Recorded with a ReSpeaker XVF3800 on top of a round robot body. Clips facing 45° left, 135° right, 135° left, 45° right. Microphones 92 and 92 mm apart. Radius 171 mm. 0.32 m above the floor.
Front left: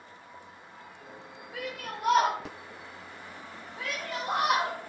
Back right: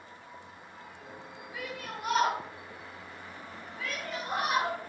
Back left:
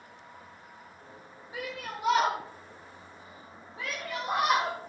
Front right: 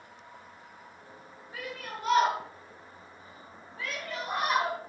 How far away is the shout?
About 3 m.